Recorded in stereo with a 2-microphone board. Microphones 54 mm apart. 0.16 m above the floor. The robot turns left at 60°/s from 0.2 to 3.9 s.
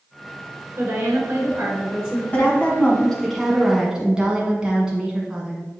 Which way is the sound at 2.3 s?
65° left.